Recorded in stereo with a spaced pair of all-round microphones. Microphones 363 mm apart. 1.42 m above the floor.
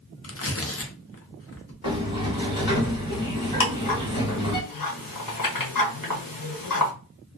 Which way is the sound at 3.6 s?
60° left (ahead or behind).